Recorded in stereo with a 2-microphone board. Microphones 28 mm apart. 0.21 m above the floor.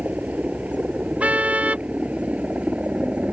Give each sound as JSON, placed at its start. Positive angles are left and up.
{"t": 0.0, "sound": "a helicopter", "side_deg": -55}
{"t": 1.2, "sound": "a car horn", "side_deg": -50}